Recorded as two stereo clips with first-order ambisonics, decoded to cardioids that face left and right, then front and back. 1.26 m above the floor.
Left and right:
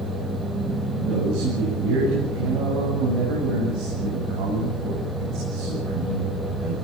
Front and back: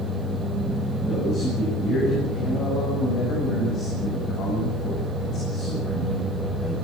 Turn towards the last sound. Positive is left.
turn(degrees=-60)